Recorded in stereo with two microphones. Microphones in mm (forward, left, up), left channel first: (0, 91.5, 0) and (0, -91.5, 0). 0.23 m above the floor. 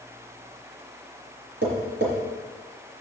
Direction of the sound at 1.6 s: 70° right (ahead or behind).